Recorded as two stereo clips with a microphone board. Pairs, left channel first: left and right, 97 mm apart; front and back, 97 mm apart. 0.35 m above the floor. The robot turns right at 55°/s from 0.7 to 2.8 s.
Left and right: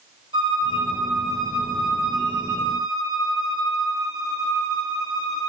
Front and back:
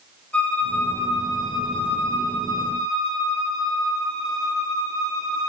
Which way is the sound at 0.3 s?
75° right.